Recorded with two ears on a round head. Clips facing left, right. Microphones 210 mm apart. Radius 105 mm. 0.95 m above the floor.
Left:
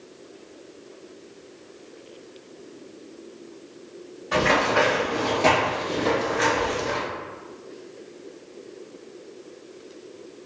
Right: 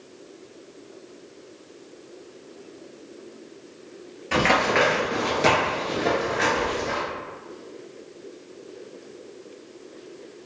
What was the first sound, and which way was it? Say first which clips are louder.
Running footsteps: even; 45° right (ahead or behind).